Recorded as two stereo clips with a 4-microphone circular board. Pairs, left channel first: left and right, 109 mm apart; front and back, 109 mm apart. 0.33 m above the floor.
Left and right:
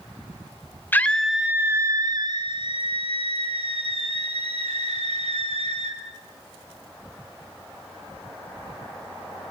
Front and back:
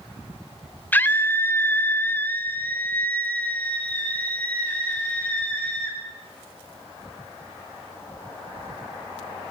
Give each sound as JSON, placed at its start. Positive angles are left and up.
{"t": 0.9, "sound": "a scream", "azimuth_deg": 50, "distance_m": 1.0}